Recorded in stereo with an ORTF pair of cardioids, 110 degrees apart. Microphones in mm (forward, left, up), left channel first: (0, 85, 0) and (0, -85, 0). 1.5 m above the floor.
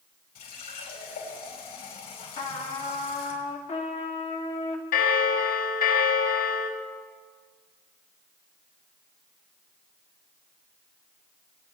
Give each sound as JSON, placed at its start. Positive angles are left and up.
{"t": 0.3, "sound": "a running tap", "azimuth_deg": 65, "distance_m": 5.5}
{"t": 2.4, "sound": "a trumpet", "azimuth_deg": 40, "distance_m": 1.8}
{"t": 4.9, "sound": "a bell", "azimuth_deg": 60, "distance_m": 1.6}